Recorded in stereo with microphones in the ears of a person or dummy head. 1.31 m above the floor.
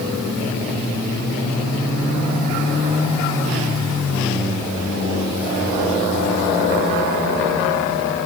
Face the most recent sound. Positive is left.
No sound to turn to.